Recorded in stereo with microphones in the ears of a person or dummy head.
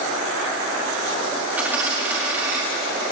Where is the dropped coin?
10° right (ahead or behind), 1.6 m.